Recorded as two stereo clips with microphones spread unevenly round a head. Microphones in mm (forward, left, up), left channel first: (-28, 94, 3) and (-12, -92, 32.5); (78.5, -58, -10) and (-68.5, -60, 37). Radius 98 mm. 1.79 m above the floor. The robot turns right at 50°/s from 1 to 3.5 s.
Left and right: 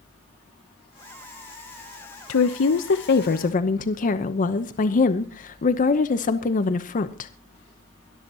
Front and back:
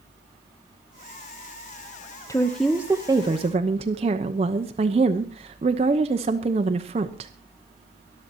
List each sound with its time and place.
2.3 s a woman speaking: 80° left, 0.8 m; by 7.3 s 140° left, 0.8 m